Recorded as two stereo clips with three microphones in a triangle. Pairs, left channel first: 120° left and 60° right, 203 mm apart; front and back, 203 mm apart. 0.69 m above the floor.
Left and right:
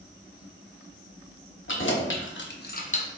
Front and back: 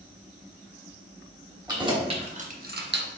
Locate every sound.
1.7 s keys jangling: 110° left, 0.9 m; by 3.1 s 175° left, 0.5 m